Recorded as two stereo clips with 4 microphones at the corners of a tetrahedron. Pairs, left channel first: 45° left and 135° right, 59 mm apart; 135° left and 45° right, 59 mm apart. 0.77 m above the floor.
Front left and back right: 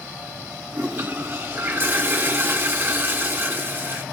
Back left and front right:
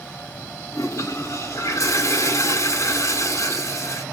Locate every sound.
0.7 s a toilet flushing: 170° left, 1.1 m